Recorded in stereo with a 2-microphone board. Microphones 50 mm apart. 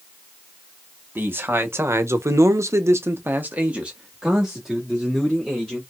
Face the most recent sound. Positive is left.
turn(degrees=0)  # may be behind; listen again after turning